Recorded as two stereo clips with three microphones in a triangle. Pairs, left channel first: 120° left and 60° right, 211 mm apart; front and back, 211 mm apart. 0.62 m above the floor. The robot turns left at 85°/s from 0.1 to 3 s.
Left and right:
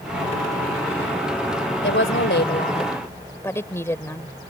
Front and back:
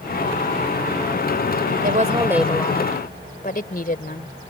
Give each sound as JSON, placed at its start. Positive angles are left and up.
{"t": 1.8, "sound": "a woman speaking", "azimuth_deg": 140}